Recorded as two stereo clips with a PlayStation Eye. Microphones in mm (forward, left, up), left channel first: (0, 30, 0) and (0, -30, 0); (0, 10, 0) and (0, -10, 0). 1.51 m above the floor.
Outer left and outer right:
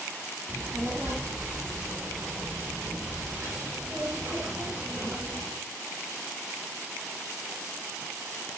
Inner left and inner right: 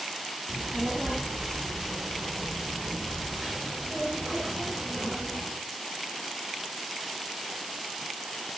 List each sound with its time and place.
0.5 s a child speaking: 30° right (ahead or behind), 3 m; by 5.5 s 35° right (ahead or behind), 6 m